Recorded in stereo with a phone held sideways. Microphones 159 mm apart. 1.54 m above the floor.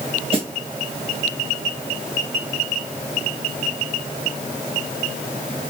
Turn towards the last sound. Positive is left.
turn(degrees=-40)  # may be behind; listen again after turning